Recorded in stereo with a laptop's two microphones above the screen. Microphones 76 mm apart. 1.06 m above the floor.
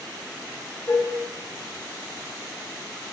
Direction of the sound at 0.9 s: 40° left (ahead or behind).